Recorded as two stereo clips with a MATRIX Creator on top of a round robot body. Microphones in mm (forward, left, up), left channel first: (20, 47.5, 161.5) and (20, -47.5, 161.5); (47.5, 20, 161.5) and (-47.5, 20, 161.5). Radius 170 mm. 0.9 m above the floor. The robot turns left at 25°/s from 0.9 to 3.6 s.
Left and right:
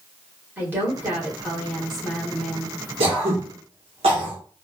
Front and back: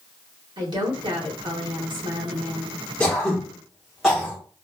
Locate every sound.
0.6 s a woman speaking: 150° right, 1.5 m; by 2.8 s 160° left, 1.5 m
3.0 s throat clearing: 75° right, 0.9 m; by 4.4 s 90° right, 0.9 m